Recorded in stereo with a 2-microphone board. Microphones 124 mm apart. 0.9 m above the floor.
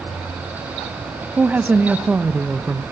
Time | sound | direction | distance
1.4 | a woman speaking | 15° right (ahead or behind) | 0.5 m